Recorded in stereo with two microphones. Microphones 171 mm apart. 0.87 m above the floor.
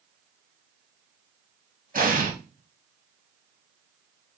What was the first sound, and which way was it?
An explosion, 55° right (ahead or behind).